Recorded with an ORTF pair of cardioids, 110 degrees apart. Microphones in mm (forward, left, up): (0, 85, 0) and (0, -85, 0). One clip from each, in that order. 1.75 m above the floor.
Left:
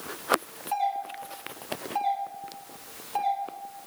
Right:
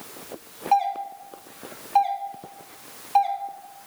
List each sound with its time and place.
0.7 s a doorbell: 55° right, 1.4 m